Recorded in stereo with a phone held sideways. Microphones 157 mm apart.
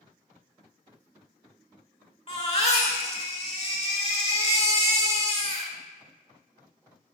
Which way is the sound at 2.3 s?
40° left (ahead or behind).